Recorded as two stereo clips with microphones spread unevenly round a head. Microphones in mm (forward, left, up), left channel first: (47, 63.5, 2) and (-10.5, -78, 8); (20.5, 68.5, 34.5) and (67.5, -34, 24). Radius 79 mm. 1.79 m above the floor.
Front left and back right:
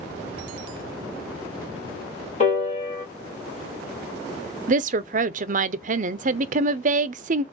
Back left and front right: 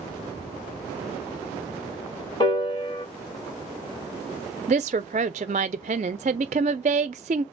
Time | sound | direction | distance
2.4 | a piano | 90° left | 1.9 m
4.7 | a woman speaking | 100° right | 0.6 m